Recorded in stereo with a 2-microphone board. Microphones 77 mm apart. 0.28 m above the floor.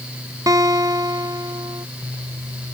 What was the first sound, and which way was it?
A guitar, 45° right (ahead or behind).